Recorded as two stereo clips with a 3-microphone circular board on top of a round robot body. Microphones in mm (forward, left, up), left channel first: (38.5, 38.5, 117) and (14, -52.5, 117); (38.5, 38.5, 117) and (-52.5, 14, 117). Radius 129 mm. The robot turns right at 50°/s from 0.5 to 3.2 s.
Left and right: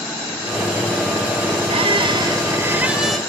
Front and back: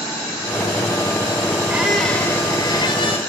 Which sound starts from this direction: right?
A squeak, at 1.7 s.